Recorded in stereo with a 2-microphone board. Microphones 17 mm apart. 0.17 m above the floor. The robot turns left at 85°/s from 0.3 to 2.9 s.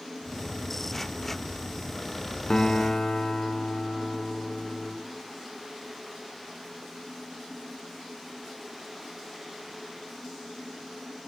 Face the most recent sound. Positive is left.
turn(degrees=85)